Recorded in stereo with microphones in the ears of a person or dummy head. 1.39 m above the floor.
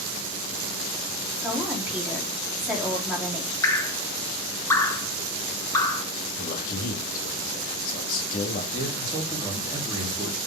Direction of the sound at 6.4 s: 50° left (ahead or behind).